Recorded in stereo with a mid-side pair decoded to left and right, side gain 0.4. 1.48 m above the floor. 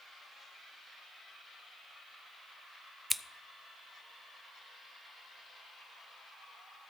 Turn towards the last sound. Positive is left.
turn(degrees=-10)